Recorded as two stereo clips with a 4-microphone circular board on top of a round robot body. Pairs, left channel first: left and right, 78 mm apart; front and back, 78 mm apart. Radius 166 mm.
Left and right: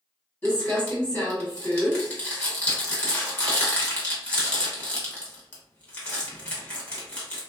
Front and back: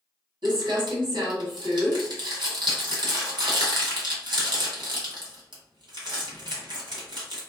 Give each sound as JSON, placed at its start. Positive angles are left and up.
{"t": 0.4, "sound": "crumpling", "azimuth_deg": 160, "distance_m": 1.6}